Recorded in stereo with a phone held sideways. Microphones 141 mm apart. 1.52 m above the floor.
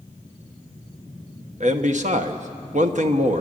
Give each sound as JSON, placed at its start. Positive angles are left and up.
{"t": 1.6, "sound": "a man speaking", "side_deg": -60, "distance_m": 1.3}